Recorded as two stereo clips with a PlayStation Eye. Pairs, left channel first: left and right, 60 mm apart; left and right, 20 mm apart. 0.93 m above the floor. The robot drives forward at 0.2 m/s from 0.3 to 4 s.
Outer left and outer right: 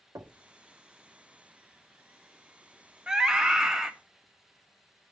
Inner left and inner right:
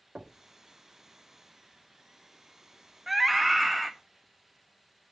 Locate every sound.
0.1 s knocking: 75° right (ahead or behind), 1.7 m
3.1 s a scream: 10° right (ahead or behind), 0.9 m